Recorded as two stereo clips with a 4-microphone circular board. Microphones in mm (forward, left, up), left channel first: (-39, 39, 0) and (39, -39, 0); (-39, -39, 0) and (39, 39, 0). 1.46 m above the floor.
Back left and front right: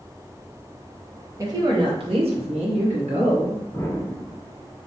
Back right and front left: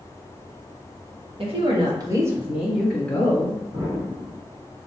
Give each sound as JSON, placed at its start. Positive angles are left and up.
{"t": 1.4, "sound": "a woman speaking", "azimuth_deg": 15, "distance_m": 1.3}
{"t": 3.7, "sound": "an explosion", "azimuth_deg": 75, "distance_m": 1.3}